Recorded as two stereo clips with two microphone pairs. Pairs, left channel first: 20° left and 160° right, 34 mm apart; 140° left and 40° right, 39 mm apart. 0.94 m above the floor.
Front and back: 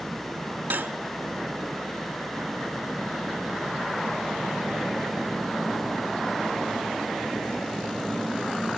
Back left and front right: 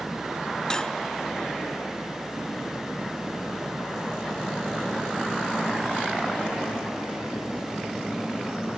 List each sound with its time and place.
0.7 s cutlery clinking: 145° right, 0.7 m